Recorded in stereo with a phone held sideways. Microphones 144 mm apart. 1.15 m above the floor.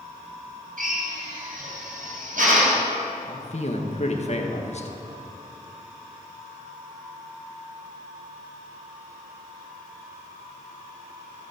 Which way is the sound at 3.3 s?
50° left (ahead or behind).